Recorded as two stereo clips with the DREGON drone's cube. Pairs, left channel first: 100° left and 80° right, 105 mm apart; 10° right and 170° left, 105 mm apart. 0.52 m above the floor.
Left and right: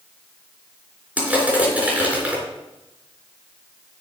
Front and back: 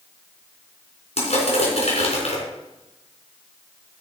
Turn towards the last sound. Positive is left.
turn(degrees=-5)